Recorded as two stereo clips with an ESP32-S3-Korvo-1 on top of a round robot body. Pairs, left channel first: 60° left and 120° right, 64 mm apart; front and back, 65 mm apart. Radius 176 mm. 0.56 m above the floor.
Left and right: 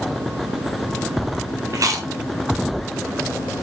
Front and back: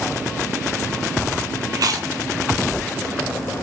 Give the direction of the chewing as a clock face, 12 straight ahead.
5 o'clock.